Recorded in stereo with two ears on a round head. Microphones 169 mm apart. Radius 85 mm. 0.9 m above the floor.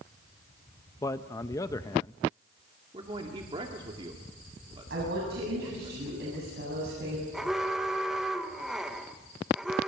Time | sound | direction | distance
1.0 | a man speaking | 15° left (ahead or behind) | 0.7 m
2.9 | a man speaking | 30° right (ahead or behind) | 2.0 m
4.9 | a woman speaking | 60° right (ahead or behind) | 8 m
7.3 | an alarm | centre (ahead or behind) | 1.5 m